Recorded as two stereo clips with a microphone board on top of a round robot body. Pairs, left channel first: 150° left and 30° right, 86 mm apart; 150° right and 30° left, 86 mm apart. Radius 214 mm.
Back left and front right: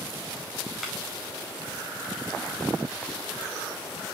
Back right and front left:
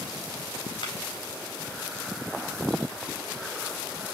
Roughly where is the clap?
Behind right.